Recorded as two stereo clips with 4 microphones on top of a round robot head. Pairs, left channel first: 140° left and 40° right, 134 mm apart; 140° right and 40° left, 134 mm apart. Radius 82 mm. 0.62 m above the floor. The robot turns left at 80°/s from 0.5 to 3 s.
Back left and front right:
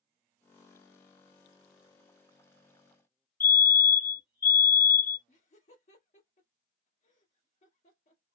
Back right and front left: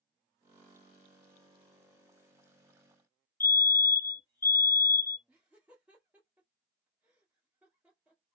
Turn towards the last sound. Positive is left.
turn(degrees=120)